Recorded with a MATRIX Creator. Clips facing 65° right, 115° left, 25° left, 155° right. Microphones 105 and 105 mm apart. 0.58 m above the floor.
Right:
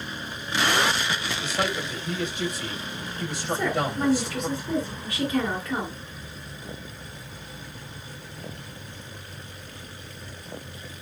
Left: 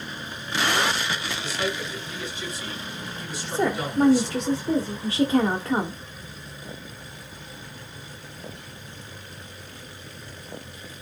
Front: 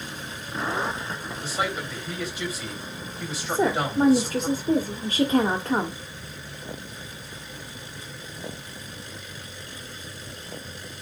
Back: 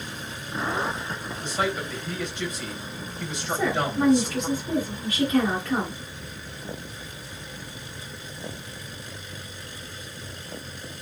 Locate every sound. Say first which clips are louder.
1.4 s a man speaking: right 2 dB, back 2 dB; 60° right, 4 m
3.5 s a woman speaking: left 1 dB, front 2 dB; 65° left, 1.3 m